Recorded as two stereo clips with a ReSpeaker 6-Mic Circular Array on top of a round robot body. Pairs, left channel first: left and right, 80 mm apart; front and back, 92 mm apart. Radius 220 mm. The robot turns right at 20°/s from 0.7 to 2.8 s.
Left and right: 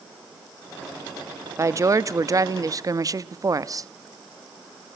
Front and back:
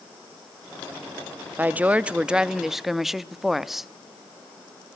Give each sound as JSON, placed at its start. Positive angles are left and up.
{"t": 1.6, "sound": "a woman speaking", "azimuth_deg": -120, "distance_m": 1.0}